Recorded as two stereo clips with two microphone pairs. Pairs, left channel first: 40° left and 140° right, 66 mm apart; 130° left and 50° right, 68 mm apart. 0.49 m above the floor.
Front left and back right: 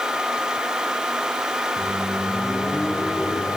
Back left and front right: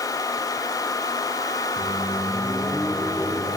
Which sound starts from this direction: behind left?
A microwave, at 1.8 s.